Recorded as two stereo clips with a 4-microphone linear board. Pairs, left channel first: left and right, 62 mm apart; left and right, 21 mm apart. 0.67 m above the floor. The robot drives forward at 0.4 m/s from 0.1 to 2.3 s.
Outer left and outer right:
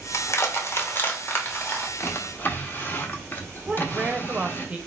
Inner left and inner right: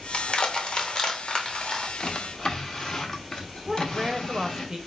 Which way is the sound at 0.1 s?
50° left (ahead or behind).